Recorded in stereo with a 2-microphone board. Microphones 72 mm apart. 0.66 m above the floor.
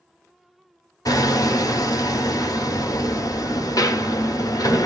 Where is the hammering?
60° left (ahead or behind), 1.1 m.